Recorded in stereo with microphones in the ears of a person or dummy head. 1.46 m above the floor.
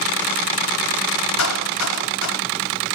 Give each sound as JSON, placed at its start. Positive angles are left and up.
{"t": 1.4, "sound": "a clap", "side_deg": 80, "distance_m": 3.5}